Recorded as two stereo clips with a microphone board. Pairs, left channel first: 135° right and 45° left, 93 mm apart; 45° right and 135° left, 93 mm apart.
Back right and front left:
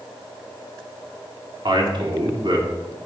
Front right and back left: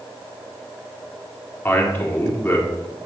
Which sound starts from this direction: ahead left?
A man speaking, at 1.6 s.